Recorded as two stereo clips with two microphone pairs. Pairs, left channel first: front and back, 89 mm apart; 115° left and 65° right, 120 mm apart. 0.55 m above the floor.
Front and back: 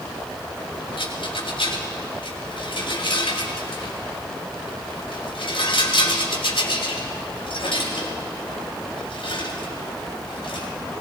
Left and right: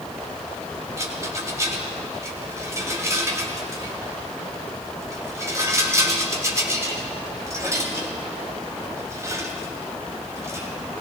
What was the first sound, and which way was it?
A rattle, straight ahead.